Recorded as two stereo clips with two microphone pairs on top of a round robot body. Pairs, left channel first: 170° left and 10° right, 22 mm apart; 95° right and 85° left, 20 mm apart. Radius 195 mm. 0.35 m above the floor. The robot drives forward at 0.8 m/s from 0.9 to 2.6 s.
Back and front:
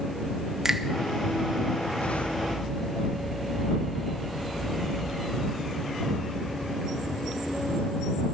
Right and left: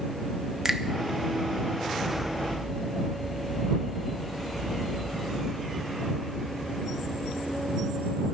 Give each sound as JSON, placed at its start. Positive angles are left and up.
{"t": 0.7, "sound": "a finger snap", "azimuth_deg": 45, "distance_m": 1.4}